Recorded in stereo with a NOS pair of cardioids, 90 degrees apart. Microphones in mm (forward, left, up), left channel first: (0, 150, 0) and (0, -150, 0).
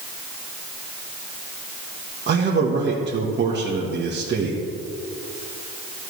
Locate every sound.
2.3 s a man speaking: 35° right, 1.5 m